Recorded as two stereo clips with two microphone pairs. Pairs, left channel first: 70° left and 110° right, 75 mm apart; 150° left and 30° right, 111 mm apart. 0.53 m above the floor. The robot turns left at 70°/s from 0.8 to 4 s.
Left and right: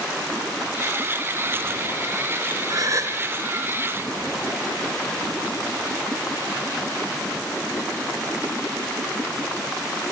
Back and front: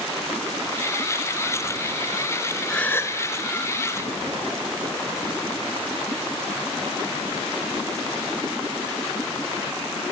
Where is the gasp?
130° right, 2 m; by 3.2 s 160° right, 2 m.